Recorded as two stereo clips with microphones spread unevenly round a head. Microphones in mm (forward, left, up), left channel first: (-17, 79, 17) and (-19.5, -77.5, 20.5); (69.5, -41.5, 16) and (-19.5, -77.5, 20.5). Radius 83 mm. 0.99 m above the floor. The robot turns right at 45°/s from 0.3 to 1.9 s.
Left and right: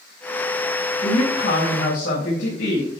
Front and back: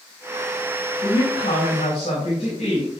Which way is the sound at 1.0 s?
25° left.